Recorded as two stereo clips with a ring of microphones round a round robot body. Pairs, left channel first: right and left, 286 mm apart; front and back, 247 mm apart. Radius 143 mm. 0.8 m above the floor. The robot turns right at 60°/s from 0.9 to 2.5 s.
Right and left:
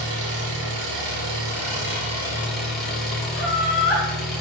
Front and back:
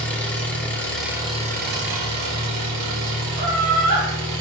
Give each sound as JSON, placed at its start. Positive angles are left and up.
{"t": 0.0, "sound": "an engine running", "azimuth_deg": 85, "distance_m": 3.0}
{"t": 3.3, "sound": "laughter", "azimuth_deg": 175, "distance_m": 3.5}